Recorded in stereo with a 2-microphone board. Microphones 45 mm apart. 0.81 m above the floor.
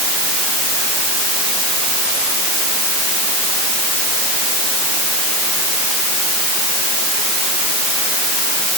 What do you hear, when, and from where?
Only background noise.